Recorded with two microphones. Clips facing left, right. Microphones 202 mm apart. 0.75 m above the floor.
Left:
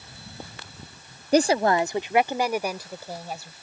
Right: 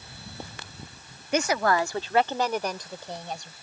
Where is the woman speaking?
35° left (ahead or behind); by 3.5 s 5° left (ahead or behind).